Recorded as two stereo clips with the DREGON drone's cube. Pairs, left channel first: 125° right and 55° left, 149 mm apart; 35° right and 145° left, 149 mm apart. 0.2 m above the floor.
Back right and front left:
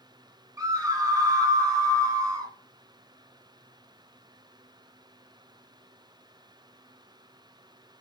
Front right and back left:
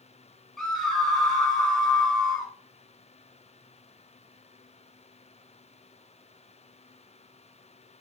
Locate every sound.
0.6 s a scream: 50° left, 1.2 m